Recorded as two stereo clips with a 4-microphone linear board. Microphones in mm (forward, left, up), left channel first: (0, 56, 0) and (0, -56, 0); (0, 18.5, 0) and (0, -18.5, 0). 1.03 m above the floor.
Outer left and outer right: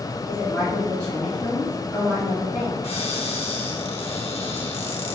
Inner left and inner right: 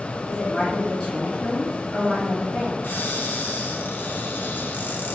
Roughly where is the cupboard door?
Left.